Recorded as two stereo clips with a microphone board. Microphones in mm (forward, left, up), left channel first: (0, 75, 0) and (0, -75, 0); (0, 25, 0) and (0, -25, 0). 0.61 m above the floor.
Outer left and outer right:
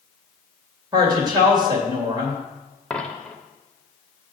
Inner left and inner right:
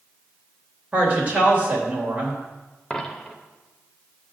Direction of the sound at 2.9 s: 5° left (ahead or behind).